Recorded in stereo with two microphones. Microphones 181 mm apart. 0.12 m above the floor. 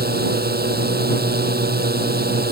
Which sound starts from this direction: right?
A drone, at 0.0 s.